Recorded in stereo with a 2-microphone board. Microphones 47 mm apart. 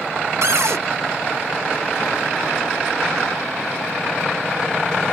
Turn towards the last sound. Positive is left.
turn(degrees=-80)